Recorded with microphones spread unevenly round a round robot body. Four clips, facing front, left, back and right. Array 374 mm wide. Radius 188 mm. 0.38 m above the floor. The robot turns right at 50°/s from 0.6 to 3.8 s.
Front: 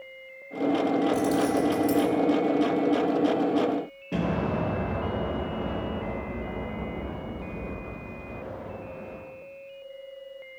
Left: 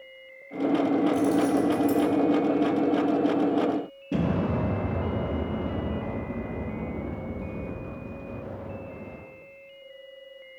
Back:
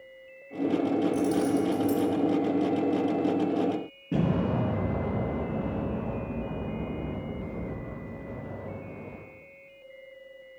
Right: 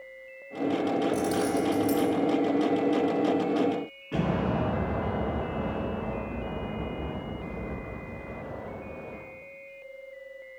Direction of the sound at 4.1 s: 140° left.